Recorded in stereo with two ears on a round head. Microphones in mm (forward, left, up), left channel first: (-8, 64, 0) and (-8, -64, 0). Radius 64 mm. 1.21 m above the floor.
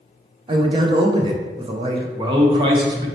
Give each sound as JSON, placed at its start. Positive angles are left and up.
{"t": 0.5, "sound": "a man speaking", "side_deg": -35, "distance_m": 0.6}
{"t": 2.2, "sound": "a man speaking", "side_deg": -35, "distance_m": 0.8}